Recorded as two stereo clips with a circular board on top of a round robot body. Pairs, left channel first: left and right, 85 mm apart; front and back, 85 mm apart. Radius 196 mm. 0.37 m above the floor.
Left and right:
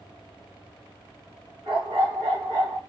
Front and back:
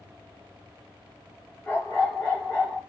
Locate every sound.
1.6 s a dog barking: 65° right, 3 m; by 2.8 s 75° right, 3 m